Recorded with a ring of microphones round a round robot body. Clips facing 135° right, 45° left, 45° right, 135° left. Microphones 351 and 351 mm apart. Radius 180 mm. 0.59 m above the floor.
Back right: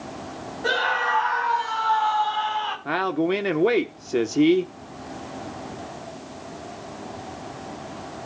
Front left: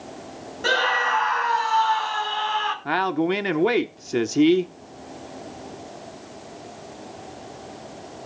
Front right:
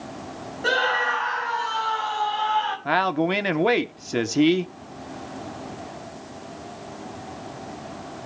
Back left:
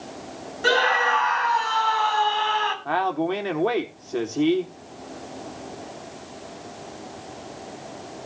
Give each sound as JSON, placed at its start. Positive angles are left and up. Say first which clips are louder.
{"t": 0.6, "sound": "a scream", "louder": "front left 2 dB, back left 3 dB", "azimuth_deg": 70, "distance_m": 6.5}
{"t": 2.9, "sound": "a man speaking", "louder": "even, front right 2 dB", "azimuth_deg": -30, "distance_m": 1.4}